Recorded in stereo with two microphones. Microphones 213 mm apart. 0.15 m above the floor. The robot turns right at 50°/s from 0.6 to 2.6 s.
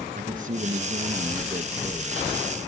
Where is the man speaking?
65° right, 1.8 m; by 2.7 s 35° left, 1.8 m.